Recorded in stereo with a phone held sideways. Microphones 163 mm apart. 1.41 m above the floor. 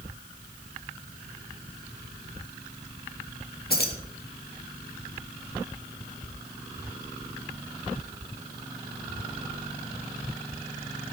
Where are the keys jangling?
70° left (ahead or behind), 1.6 m.